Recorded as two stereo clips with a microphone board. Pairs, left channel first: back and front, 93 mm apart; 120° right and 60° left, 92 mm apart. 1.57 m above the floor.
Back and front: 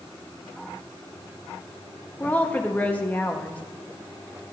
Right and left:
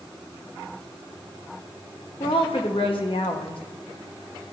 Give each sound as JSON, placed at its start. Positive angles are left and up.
{"t": 2.2, "sound": "a woman speaking", "azimuth_deg": -110, "distance_m": 1.0}